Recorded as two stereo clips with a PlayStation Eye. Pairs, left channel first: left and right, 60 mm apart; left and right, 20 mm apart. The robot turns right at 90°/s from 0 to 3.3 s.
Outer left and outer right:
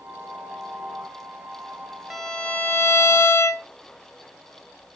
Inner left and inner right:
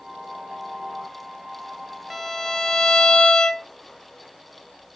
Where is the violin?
5° right, 0.6 m; by 3.7 s 100° left, 0.6 m.